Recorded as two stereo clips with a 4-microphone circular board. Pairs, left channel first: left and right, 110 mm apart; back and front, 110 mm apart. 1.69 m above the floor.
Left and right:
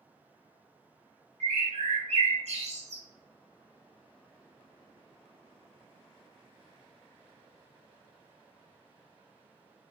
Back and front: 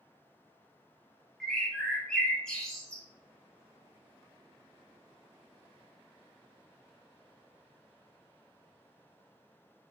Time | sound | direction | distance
1.4 | a bird | 95° right | 0.6 m